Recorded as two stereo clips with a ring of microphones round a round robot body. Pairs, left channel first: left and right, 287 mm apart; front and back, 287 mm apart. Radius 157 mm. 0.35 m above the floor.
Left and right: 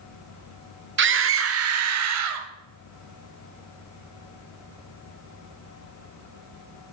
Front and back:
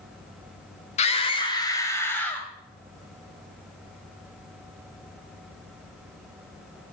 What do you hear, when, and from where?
1.0 s a scream: 60° right, 1.3 m; by 2.5 s 85° right, 1.9 m